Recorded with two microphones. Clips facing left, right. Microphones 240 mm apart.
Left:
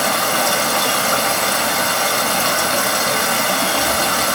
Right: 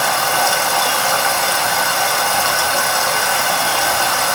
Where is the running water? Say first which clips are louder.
Even; 40° left (ahead or behind), 1.7 m.